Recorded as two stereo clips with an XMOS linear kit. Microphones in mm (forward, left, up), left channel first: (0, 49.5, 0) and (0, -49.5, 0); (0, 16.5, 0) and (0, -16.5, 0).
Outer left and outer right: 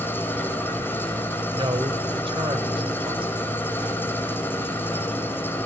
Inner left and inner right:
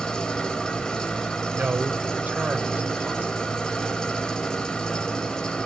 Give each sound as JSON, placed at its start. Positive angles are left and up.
{"t": 0.0, "sound": "an engine running", "side_deg": 20, "distance_m": 3.5}
{"t": 1.5, "sound": "a man speaking", "side_deg": -60, "distance_m": 4.5}